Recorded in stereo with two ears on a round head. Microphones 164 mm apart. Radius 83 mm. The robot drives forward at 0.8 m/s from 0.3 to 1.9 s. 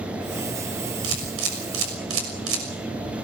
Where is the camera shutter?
70° right (ahead or behind), 6.5 m; by 2.6 s 75° right (ahead or behind), 6 m.